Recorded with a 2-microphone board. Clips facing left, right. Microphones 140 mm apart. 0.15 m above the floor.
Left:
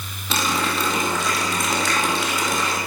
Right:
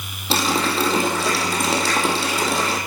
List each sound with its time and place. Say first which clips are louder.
0.3 s a running tap: right 3 dB; 30° right (ahead or behind), 3.5 m